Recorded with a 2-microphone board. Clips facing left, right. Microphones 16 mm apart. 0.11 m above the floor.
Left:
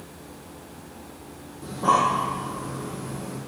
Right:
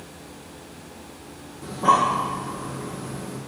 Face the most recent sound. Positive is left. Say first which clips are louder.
# right 2 dB
turn(degrees=-5)  # may be behind; listen again after turning